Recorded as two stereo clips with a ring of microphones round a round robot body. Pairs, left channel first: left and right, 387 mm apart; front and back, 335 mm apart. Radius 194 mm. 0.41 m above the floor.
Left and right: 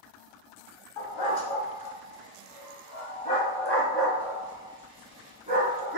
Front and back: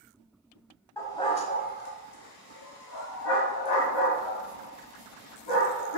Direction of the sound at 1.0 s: 80° left.